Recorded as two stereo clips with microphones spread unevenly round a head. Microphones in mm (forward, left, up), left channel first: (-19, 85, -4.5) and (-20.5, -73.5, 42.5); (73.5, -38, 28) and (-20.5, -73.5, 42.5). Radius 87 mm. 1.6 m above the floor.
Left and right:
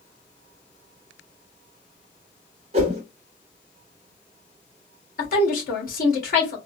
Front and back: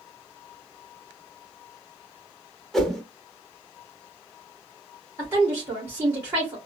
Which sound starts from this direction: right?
A whoosh, at 2.7 s.